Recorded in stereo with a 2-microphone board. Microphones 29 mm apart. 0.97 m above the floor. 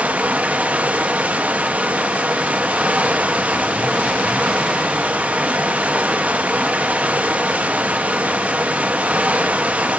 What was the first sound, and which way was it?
Running water, 60° right (ahead or behind).